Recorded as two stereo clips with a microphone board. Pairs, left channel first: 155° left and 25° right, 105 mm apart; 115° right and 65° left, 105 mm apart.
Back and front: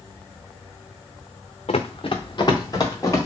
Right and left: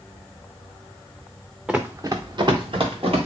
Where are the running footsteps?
150° left, 0.6 m; by 3.3 s 100° left, 1.9 m.